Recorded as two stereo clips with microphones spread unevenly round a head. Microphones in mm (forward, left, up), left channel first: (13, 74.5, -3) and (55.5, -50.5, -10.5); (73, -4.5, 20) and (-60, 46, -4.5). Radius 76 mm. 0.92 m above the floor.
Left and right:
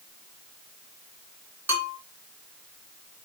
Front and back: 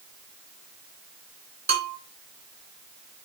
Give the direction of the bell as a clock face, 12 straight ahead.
5 o'clock.